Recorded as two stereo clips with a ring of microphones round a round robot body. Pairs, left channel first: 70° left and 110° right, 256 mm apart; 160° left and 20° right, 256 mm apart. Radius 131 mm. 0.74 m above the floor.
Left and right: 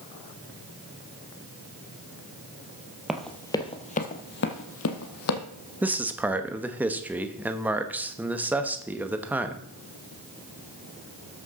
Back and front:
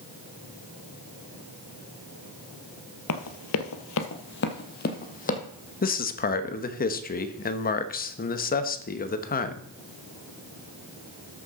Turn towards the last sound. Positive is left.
turn(degrees=170)